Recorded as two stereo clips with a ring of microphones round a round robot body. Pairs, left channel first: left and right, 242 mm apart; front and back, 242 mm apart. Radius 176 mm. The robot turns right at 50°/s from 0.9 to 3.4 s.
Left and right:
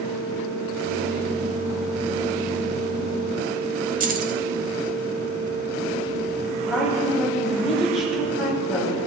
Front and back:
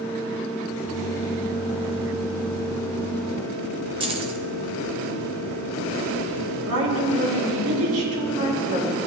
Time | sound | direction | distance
4.0 | keys jangling | 120° right | 0.6 m
6.7 | a woman speaking | straight behind | 3.5 m